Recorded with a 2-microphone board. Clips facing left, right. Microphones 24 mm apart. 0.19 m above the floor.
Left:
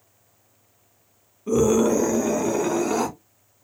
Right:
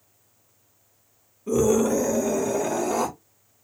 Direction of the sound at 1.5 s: 15° left (ahead or behind).